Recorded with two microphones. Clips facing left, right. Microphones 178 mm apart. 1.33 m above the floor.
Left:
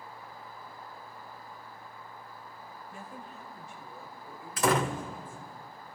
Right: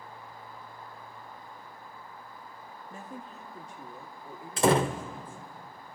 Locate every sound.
2.9 s a woman speaking: 40° right (ahead or behind), 1.7 m; by 5.4 s 30° right (ahead or behind), 4 m
4.6 s a door slam: 30° right (ahead or behind), 0.7 m